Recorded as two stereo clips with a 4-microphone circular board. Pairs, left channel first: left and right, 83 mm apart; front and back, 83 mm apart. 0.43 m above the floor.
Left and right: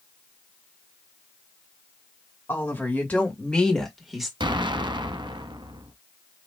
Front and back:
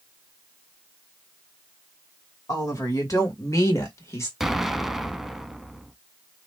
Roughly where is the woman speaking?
Ahead left.